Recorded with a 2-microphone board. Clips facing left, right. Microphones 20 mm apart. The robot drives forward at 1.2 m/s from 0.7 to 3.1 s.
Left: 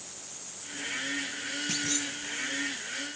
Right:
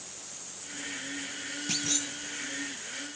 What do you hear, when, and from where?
1.7 s a clunk: 15° right (ahead or behind), 1.1 m; by 2.1 s 20° right (ahead or behind), 0.8 m